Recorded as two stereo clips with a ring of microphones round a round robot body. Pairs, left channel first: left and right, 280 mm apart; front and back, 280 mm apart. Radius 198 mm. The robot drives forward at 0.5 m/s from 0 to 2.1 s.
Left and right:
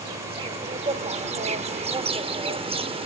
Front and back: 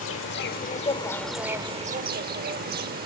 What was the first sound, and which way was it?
An insect, 20° right.